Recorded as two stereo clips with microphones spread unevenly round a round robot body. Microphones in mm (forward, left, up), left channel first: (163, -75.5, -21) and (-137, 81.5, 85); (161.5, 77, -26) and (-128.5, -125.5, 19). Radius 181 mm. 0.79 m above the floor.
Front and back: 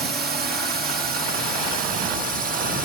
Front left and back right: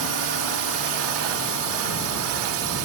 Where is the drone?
135° right; by 2.9 s 130° right.